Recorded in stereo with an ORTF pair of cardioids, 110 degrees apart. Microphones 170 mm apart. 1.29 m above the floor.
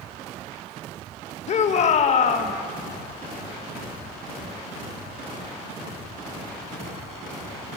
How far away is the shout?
About 1.1 m.